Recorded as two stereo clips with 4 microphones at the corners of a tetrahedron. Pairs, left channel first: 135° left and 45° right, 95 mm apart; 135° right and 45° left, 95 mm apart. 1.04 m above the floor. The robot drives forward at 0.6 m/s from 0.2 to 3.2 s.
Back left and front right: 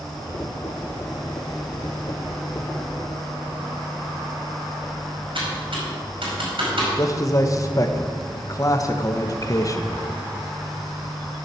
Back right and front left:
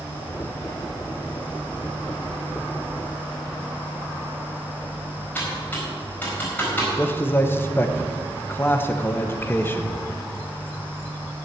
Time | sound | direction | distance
5.3 | typing on a keyboard | 65° right | 4.5 m
7.0 | a man speaking | 170° left | 1.0 m